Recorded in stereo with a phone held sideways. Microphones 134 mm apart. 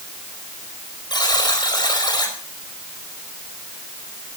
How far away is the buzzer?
About 4.5 m.